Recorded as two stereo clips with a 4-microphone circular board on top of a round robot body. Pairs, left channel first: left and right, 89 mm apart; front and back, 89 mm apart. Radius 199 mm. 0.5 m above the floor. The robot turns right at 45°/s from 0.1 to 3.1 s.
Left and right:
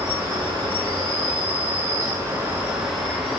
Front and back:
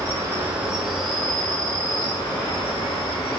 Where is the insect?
125° right, 3.5 m; by 3.4 s 10° left, 3.5 m.